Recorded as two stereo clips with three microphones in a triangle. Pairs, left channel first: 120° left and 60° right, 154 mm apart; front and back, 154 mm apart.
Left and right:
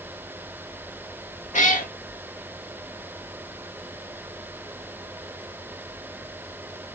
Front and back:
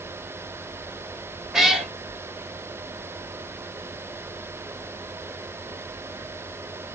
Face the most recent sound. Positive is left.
turn(degrees=95)